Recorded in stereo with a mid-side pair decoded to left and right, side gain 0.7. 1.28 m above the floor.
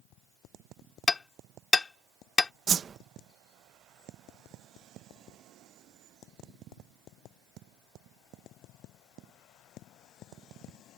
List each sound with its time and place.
1.1 s hammering: 20° left
2.7 s a whoosh: 30° right